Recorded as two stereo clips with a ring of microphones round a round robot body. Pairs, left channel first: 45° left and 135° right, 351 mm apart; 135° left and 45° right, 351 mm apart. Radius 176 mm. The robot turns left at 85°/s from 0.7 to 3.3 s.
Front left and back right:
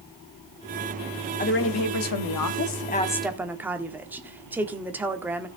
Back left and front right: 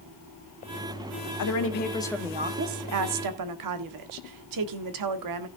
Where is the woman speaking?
110° left, 1.4 m; by 5.5 s 50° right, 1.4 m.